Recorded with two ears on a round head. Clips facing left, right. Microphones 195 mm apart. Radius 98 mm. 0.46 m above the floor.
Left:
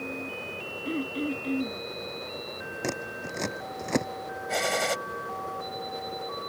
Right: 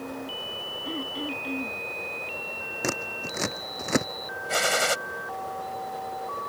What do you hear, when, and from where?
0.8 s throat clearing: 25° left (ahead or behind)
2.8 s scissors: 5° right (ahead or behind)
4.5 s a gunshot: 5° right (ahead or behind)